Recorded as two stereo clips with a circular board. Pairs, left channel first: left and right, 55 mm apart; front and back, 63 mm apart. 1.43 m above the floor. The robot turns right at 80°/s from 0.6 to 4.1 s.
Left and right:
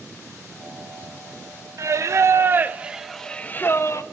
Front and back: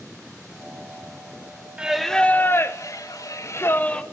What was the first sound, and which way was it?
Singing, 105° right.